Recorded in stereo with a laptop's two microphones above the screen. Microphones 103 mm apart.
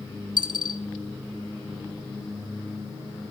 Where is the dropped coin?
45° right (ahead or behind), 1.5 m.